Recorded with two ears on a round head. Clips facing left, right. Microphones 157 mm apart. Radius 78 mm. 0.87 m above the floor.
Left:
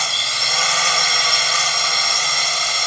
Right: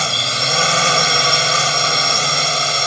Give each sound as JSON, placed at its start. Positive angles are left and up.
{"t": 0.0, "sound": "a drone", "side_deg": -70}